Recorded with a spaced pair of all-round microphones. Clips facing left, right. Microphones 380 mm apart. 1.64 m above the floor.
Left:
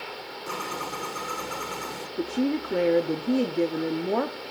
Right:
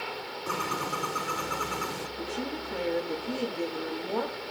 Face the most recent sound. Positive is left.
turn(degrees=75)  # may be behind; listen again after turning